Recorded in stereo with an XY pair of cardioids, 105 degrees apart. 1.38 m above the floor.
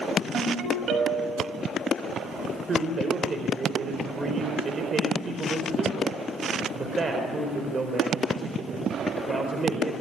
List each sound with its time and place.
0.3 s a ringtone: 65° right, 6.5 m
2.7 s a man speaking: 35° right, 4.5 m